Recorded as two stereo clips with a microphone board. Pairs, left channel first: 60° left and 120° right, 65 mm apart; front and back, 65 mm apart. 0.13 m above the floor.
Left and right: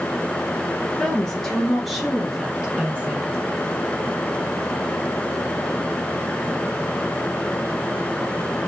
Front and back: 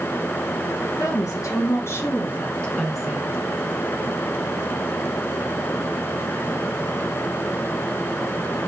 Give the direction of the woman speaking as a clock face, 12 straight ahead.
1 o'clock.